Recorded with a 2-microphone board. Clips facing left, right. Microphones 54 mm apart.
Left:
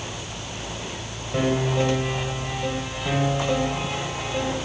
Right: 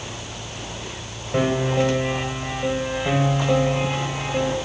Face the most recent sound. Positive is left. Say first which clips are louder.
# right 2 dB
turn(degrees=-20)  # may be behind; listen again after turning